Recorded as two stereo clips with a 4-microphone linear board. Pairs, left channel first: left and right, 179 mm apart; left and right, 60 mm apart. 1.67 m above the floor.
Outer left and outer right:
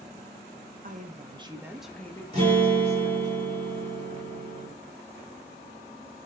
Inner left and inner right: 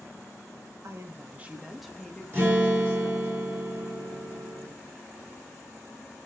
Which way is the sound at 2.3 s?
35° right (ahead or behind).